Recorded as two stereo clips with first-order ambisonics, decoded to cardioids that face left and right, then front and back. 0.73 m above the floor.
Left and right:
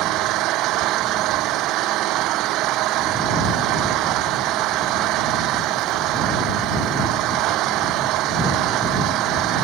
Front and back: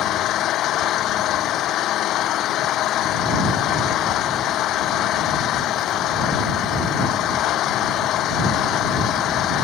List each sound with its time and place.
0.0 s an engine running: 50° right